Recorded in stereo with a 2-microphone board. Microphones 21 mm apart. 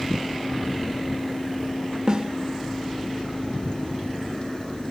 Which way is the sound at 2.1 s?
40° right (ahead or behind).